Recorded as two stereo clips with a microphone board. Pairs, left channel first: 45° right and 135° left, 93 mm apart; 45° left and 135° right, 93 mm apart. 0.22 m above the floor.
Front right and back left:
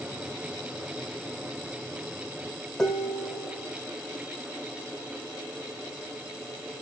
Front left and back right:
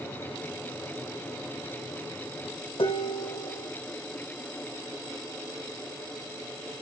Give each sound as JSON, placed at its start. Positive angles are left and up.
{"t": 2.8, "sound": "dishes clattering", "azimuth_deg": 40, "distance_m": 7.5}